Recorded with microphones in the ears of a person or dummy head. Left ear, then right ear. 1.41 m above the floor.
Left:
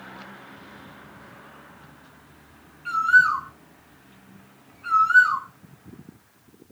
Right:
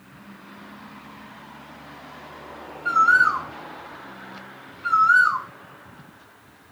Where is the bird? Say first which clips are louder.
Right 1 dB; 5° left (ahead or behind), 2.5 m.